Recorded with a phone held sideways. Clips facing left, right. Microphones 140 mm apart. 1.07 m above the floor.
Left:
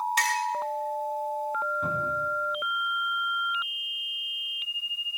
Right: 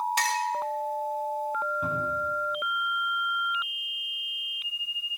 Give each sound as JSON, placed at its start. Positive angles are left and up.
{"t": 0.2, "sound": "a clink", "side_deg": -30, "distance_m": 1.9}
{"t": 1.8, "sound": "a cupboard door", "side_deg": -5, "distance_m": 7.5}